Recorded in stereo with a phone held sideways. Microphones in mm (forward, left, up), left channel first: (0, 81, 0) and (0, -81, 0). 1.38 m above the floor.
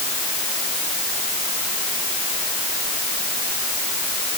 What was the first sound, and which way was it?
Only background noise.